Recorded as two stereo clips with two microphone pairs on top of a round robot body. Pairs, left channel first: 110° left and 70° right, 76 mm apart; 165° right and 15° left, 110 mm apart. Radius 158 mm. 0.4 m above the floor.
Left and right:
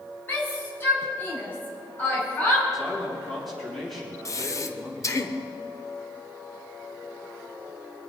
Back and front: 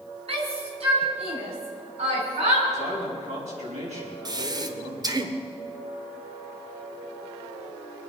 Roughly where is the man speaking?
Ahead.